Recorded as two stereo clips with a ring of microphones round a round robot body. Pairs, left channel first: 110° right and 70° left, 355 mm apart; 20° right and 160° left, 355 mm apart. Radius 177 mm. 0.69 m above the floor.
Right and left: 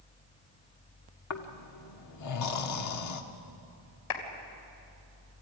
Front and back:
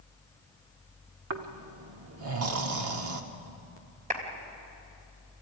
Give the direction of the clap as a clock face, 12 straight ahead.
4 o'clock.